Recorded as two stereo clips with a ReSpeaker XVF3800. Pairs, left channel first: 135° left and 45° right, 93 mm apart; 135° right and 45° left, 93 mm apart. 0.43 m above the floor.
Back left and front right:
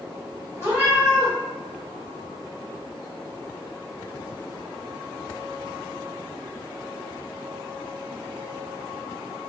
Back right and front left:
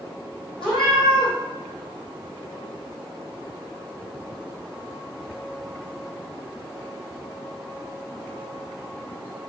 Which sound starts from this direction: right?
A cat meowing, at 0.6 s.